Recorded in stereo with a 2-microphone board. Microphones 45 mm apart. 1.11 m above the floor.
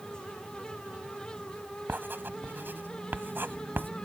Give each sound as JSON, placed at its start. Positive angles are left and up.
{"t": 1.9, "sound": "writing", "side_deg": -60}